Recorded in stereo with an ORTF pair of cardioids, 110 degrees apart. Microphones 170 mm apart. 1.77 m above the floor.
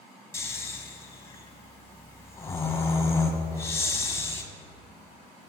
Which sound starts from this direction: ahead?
Snoring, at 0.3 s.